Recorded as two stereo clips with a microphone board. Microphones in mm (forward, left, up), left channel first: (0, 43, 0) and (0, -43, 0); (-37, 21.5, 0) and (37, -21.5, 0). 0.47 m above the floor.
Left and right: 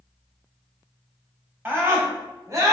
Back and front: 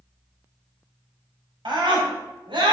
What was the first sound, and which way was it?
A scream, 25° right.